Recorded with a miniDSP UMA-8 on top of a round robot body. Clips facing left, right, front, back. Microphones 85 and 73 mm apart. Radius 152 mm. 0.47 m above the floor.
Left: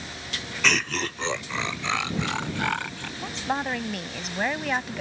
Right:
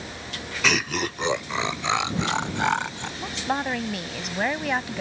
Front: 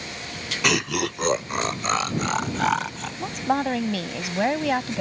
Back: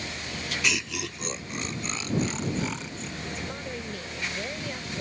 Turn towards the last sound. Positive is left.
turn(degrees=0)